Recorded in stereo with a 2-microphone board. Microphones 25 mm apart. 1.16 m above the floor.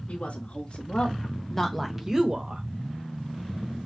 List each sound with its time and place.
0.1 s a woman speaking: 55° left (ahead or behind), 2 m; by 2.6 s 45° right (ahead or behind), 1.3 m